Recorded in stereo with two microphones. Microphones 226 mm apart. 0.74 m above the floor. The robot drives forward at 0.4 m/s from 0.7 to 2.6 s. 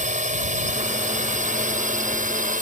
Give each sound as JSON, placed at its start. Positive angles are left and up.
{"t": 0.0, "sound": "a drone", "side_deg": -30}